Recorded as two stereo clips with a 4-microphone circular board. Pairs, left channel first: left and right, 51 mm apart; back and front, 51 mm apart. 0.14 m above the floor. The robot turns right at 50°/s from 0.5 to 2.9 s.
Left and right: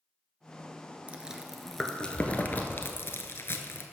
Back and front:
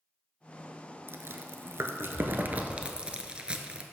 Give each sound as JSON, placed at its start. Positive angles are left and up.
{"t": 1.1, "sound": "chewing", "azimuth_deg": -25, "distance_m": 0.7}